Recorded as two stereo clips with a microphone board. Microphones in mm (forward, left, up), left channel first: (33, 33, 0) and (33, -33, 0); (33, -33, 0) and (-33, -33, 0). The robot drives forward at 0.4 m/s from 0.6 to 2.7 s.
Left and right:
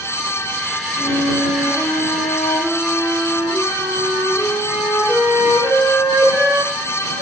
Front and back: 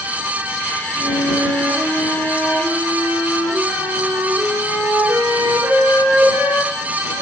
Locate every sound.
1.0 s a flute: 135° right, 6.5 m; by 7.2 s 140° right, 7 m